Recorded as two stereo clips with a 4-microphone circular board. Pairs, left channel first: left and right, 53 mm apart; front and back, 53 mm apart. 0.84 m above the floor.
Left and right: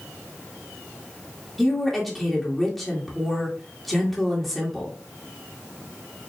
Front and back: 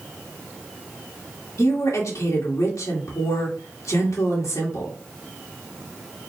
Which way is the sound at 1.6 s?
Straight ahead.